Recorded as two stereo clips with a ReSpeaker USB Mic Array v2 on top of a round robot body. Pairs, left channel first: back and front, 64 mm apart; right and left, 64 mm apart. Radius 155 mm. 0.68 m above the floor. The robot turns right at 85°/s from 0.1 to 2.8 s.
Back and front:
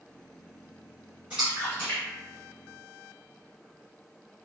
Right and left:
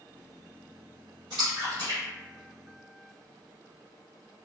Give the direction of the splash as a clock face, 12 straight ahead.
10 o'clock.